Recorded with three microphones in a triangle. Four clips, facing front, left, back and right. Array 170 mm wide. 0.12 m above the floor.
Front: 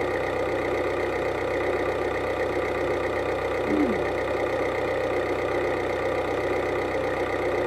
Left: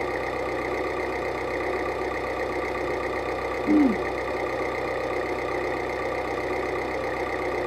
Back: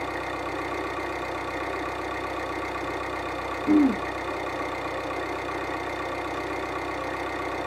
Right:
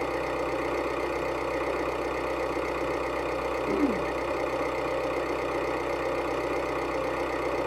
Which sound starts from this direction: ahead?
An engine running, at 0.0 s.